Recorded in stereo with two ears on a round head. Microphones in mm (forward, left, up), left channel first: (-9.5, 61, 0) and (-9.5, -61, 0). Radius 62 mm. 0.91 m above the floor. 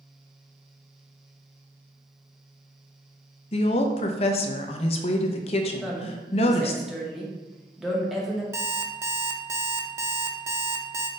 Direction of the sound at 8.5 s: 20° right (ahead or behind).